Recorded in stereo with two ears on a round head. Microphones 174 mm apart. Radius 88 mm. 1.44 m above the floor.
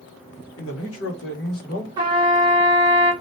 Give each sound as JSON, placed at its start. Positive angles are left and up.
{"t": 0.6, "sound": "a man speaking", "side_deg": 80, "distance_m": 1.3}
{"t": 2.0, "sound": "a trumpet", "side_deg": -20, "distance_m": 1.0}